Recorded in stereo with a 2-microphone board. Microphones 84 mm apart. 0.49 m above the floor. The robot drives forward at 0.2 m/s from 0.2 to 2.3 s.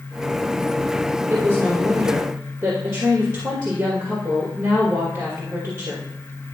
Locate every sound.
1.3 s a woman speaking: 35° right (ahead or behind), 1.9 m; by 6.1 s 40° right (ahead or behind), 1.8 m